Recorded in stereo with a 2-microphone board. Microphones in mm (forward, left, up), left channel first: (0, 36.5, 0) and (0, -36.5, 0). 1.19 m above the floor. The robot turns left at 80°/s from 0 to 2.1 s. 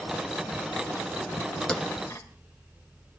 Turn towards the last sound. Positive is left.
turn(degrees=40)  # may be behind; listen again after turning